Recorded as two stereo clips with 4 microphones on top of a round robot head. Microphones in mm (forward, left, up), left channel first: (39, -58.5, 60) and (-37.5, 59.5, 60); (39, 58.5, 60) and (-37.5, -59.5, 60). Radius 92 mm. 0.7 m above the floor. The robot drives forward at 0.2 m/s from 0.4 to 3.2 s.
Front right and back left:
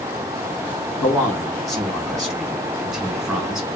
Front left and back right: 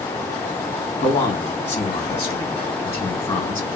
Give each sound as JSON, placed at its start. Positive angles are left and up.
{"t": 1.0, "sound": "a man speaking", "azimuth_deg": 15, "distance_m": 1.4}